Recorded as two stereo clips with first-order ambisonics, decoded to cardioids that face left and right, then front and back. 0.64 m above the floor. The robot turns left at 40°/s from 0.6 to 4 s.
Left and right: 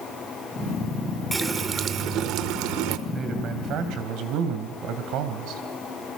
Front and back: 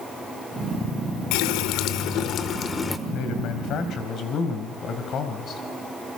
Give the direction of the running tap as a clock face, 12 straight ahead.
12 o'clock.